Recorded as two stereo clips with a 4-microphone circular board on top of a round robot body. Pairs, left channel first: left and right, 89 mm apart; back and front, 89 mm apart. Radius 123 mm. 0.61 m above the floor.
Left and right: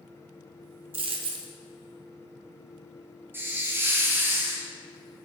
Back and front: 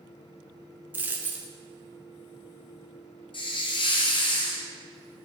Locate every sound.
0.9 s a dropped coin: 70° right, 0.8 m
3.3 s a hiss: 155° right, 1.2 m